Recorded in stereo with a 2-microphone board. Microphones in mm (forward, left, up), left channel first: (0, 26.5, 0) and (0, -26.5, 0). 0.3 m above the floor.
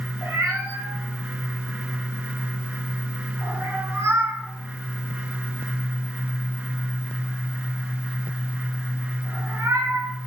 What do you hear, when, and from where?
0.2 s a cat meowing: 65° right (ahead or behind), 1.0 m